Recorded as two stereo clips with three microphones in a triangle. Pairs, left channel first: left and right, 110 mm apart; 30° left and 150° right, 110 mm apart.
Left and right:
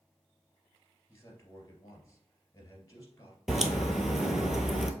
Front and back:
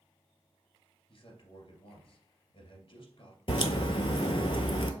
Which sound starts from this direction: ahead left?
A man speaking, at 1.1 s.